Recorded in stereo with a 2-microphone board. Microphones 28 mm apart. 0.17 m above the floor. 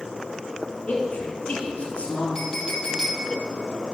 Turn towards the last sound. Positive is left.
turn(degrees=25)  # may be behind; listen again after turning